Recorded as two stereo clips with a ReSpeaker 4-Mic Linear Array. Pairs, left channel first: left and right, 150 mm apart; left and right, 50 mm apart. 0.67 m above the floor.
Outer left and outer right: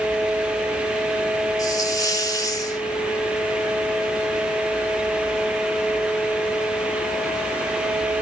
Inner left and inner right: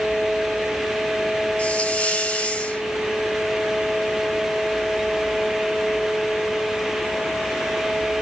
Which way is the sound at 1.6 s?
25° left (ahead or behind).